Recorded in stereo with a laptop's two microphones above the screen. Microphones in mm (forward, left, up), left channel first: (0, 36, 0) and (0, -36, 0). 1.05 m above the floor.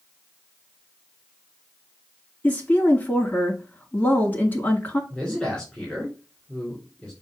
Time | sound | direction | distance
2.4 | a woman speaking | 25° left (ahead or behind) | 2 m
5.1 | a man speaking | 5° left (ahead or behind) | 3 m